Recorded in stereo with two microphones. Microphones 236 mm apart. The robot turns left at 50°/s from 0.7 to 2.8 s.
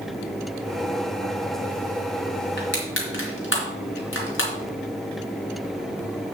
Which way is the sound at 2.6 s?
45° left (ahead or behind).